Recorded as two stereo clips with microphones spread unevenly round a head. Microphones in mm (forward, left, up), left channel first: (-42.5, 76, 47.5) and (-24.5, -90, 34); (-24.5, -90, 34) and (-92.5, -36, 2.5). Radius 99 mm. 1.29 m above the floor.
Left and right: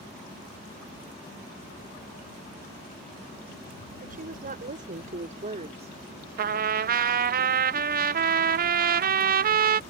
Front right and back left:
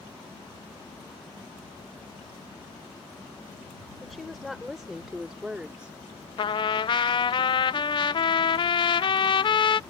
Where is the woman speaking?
120° right; by 5.9 s 140° right.